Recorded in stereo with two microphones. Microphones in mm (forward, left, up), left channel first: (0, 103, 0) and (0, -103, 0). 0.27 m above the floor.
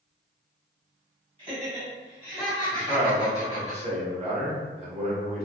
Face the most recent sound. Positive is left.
turn(degrees=-30)  # may be behind; listen again after turning